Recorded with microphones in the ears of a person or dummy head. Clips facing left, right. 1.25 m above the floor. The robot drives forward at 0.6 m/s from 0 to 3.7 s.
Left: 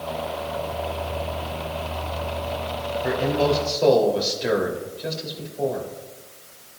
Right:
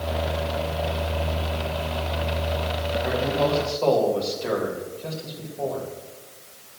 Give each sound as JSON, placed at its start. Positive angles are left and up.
{"t": 3.0, "sound": "a man speaking", "side_deg": 20, "distance_m": 3.0}